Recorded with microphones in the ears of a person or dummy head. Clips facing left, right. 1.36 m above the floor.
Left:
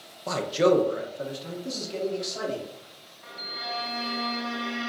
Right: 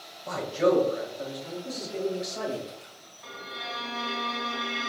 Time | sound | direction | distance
0.3 | a man speaking | 65° left (ahead or behind) | 0.6 m
3.2 | a violin | 55° right (ahead or behind) | 0.9 m